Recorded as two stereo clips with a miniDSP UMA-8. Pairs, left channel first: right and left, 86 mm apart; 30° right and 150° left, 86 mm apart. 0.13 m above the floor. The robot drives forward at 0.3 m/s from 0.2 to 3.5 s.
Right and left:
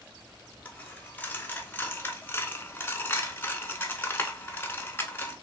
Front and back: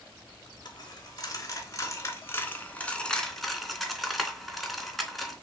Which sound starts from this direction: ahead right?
A dropped coin, at 0.7 s.